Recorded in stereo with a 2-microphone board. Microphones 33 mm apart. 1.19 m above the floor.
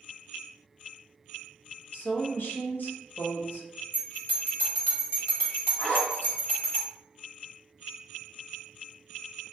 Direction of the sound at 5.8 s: 75° left (ahead or behind).